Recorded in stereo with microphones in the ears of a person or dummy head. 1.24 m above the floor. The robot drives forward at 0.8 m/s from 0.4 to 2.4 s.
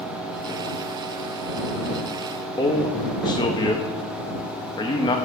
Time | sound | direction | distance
2.6 | a man speaking | 25° left (ahead or behind) | 0.6 m